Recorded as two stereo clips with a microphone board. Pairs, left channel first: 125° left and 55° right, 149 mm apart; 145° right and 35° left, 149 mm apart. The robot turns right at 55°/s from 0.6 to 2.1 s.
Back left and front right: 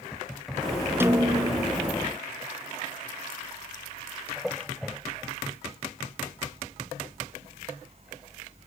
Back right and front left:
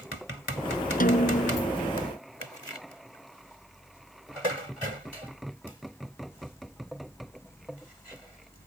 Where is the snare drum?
130° right; by 1.7 s 90° right.